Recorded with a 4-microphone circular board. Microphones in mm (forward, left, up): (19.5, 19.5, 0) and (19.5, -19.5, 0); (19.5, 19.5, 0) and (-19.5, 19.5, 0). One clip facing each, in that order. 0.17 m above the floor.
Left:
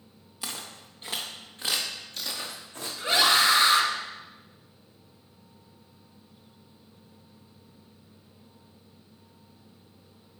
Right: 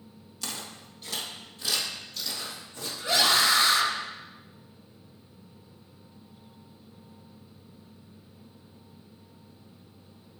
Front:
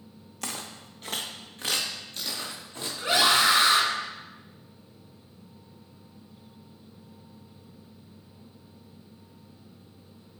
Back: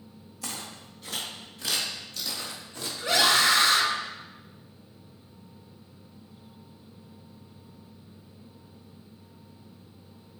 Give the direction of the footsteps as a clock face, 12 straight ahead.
11 o'clock.